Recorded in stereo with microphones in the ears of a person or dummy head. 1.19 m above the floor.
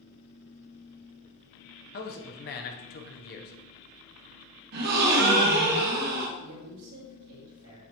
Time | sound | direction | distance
1.9 | a man speaking | 45° left (ahead or behind) | 0.7 m
4.7 | a gasp | 55° right (ahead or behind) | 0.9 m
6.4 | a woman speaking | 80° right | 2 m